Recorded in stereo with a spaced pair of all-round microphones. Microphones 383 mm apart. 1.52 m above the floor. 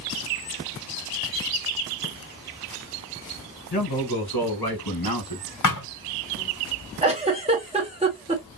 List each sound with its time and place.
3.7 s a man speaking: 80° left, 2.5 m; by 5.4 s 60° left (ahead or behind), 1.6 m
5.6 s a thud: 50° left (ahead or behind), 2 m
7.0 s a giggle: 15° right (ahead or behind), 1.4 m